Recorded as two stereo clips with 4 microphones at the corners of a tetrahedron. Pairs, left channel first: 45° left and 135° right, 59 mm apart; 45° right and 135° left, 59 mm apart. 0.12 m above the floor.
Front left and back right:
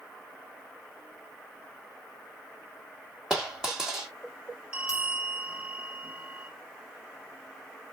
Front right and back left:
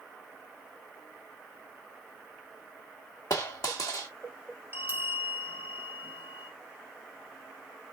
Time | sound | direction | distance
3.3 | a dropped coin | 55° right | 1.9 m
4.7 | a bell | 160° left | 1.5 m